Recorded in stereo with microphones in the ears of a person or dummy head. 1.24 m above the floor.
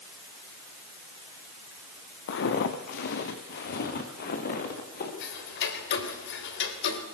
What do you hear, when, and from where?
2.3 s footsteps: 55° left (ahead or behind), 2 m; by 5.1 s 60° left (ahead or behind), 4.5 m
5.2 s ticking: 75° left (ahead or behind), 3 m